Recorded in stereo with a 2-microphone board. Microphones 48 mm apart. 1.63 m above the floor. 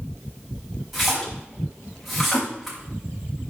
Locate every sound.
0.9 s a splash: centre (ahead or behind), 4 m